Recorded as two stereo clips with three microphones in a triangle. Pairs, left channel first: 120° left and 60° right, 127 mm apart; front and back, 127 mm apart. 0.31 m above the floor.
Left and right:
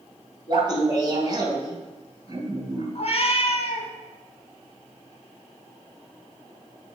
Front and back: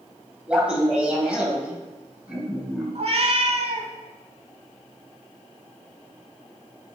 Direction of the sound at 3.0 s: 155° left.